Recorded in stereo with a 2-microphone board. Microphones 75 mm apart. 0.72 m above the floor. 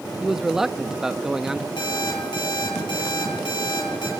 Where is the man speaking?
5° right (ahead or behind), 0.6 m.